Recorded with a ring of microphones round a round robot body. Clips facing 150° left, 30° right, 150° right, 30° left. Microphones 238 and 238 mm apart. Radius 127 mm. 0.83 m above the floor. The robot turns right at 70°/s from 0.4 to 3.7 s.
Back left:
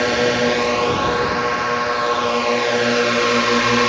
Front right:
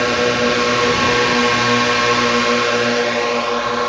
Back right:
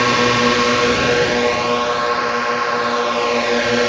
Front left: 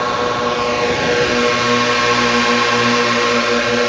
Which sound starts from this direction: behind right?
A drone, at 0.0 s.